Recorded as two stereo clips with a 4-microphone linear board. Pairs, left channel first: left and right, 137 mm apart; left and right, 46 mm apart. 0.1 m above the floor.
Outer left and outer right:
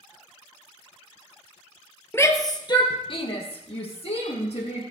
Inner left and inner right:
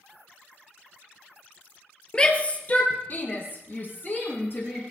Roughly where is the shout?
Centre.